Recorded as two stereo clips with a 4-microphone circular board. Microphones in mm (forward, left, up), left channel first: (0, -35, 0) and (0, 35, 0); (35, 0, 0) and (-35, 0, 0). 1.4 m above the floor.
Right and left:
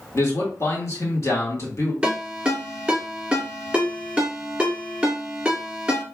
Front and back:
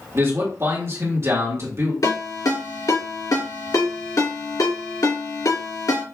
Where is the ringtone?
15° left, 2.5 m.